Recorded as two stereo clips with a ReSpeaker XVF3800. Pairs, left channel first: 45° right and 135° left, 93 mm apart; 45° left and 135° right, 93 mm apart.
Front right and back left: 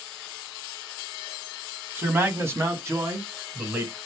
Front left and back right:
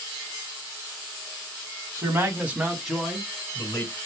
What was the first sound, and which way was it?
A man speaking, 170° right.